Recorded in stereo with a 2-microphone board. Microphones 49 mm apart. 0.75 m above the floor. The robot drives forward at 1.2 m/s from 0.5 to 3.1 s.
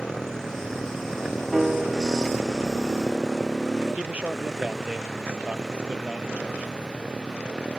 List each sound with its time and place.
0.0 s a motorcycle: 15° left (ahead or behind); by 7.8 s 15° right (ahead or behind)
1.5 s a piano: 10° right (ahead or behind)
4.0 s a man speaking: 30° right (ahead or behind)